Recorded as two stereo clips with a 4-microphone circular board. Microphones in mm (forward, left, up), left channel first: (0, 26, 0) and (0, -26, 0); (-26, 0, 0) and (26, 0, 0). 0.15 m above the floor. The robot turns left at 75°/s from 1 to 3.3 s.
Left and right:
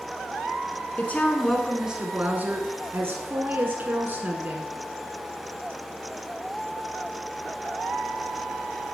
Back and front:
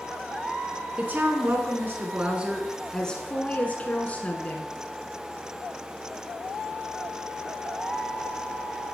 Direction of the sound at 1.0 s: 45° left.